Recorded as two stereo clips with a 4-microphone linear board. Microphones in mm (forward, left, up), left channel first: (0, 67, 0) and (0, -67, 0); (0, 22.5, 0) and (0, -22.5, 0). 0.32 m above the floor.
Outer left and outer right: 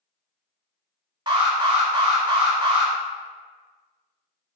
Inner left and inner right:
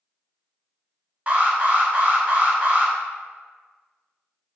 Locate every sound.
1.3 s an alarm: 35° right (ahead or behind), 0.8 m